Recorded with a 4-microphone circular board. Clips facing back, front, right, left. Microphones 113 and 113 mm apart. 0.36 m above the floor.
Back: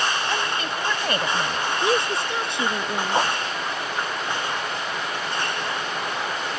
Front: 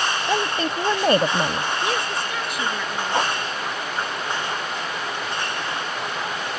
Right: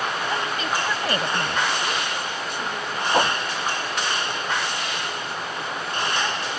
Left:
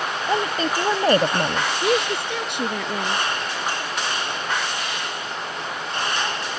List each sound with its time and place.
0.3 s a woman speaking: 50° left
1.8 s a woman speaking: 115° left
3.1 s a whoosh: 95° right